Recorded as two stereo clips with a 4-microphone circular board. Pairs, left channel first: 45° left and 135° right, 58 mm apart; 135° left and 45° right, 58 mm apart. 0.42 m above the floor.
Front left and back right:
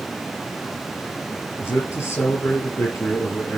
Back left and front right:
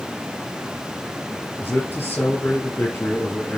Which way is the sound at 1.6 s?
85° left.